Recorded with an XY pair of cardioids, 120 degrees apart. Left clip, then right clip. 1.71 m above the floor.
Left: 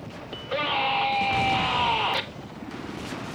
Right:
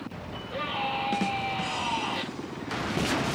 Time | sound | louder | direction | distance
0.3 | a scream | left 6 dB | 70° left | 3.5 m